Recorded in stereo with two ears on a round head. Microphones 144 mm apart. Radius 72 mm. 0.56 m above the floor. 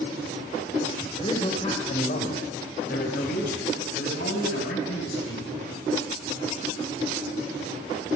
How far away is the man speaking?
About 2.5 m.